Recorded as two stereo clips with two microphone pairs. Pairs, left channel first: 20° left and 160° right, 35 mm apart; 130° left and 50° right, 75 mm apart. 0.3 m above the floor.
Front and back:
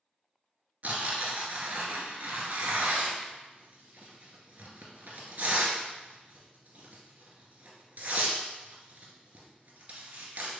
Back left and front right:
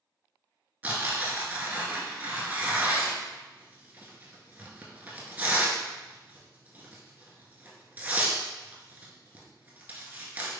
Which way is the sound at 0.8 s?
120° right.